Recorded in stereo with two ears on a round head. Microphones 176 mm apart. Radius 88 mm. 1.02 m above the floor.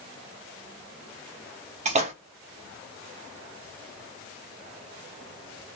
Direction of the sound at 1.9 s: 35° right (ahead or behind).